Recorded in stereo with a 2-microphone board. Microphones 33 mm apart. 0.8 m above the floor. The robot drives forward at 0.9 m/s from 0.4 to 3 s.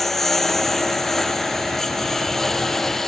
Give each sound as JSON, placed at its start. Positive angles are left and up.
{"t": 0.0, "sound": "a lawn mower", "side_deg": 10}